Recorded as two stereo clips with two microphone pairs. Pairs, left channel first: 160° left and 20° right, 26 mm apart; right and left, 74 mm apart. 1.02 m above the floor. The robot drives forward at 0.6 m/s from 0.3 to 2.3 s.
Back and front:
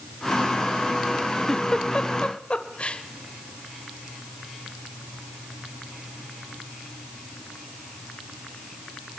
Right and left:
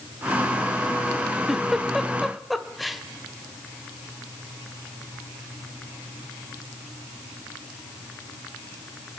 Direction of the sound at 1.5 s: 170° left.